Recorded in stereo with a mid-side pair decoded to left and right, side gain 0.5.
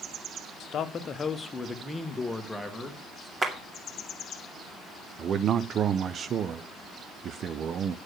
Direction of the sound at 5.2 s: 50° right.